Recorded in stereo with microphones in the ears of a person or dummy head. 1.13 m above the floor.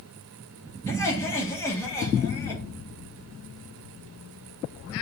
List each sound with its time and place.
0.9 s laughter: 15° left (ahead or behind), 2.5 m